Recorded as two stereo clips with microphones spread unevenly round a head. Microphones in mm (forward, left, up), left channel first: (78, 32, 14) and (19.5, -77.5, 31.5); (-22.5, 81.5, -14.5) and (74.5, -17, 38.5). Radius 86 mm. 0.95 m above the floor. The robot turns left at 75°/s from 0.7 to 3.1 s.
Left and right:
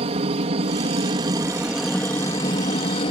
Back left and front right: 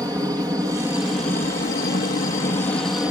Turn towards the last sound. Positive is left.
turn(degrees=55)